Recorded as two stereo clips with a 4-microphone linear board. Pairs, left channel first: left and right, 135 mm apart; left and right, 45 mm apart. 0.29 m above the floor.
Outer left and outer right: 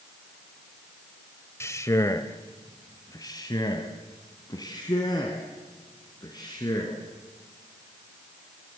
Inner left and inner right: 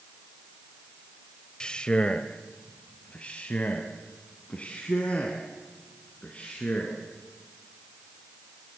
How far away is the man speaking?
About 1.0 m.